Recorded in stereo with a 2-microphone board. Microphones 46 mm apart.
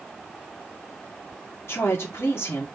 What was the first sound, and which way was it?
A woman speaking, 70° left (ahead or behind).